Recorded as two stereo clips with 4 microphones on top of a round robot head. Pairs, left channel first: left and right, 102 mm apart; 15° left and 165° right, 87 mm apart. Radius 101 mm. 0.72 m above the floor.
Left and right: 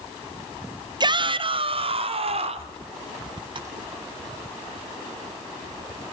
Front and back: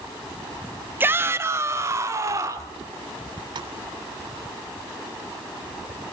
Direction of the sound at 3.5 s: 130° right.